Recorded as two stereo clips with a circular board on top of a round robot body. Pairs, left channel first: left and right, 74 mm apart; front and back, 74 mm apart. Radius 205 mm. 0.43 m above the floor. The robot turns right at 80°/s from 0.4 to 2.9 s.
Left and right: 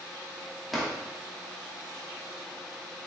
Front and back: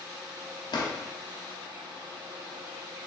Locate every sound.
0.7 s a drawer: straight ahead, 0.9 m; by 0.9 s 20° left, 0.9 m